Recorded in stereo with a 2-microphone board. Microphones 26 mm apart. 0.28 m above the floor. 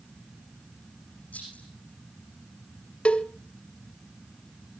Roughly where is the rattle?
Left.